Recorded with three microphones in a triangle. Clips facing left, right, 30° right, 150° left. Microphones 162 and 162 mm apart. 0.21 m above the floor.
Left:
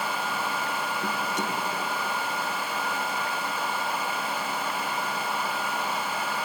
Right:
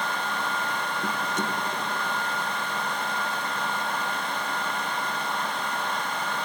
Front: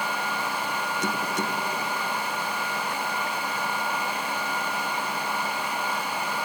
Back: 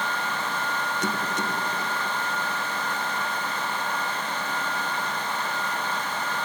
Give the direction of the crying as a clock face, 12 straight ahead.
No crying in this recording.